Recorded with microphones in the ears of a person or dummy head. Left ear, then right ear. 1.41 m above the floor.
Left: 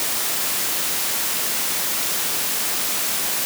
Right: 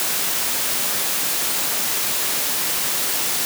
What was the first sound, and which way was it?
Only background noise.